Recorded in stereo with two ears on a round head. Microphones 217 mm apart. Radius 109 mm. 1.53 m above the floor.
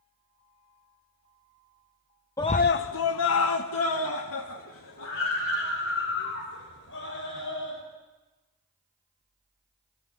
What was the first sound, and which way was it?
A scream, 15° left (ahead or behind).